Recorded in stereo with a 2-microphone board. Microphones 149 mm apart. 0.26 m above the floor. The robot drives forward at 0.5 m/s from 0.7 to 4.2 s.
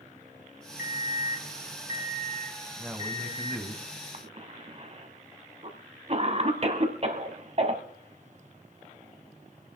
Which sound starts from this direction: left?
An alarm clock, at 0.8 s.